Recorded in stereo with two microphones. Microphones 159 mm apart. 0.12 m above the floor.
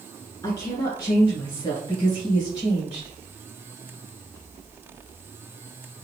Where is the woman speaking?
20° left (ahead or behind), 1.6 m; by 3.1 s 30° left (ahead or behind), 2 m.